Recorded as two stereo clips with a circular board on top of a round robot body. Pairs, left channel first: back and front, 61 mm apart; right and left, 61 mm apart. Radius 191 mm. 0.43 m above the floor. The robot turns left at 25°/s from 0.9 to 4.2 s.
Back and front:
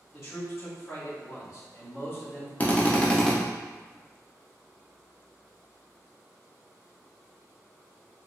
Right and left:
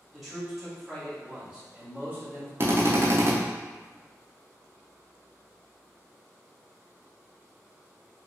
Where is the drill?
125° left, 0.8 m; by 3.3 s 105° left, 0.8 m.